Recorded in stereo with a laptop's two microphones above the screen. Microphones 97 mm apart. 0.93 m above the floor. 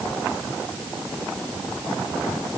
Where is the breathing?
I don't hear breathing.